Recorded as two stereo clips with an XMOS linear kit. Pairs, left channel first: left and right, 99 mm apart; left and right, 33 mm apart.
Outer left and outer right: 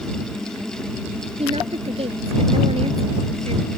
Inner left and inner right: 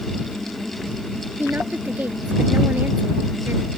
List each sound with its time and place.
1.4 s a woman speaking: 75° right (ahead or behind)